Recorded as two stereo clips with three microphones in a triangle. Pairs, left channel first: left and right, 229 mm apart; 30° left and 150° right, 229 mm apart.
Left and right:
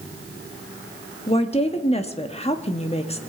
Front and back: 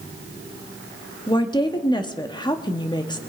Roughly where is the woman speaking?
Left.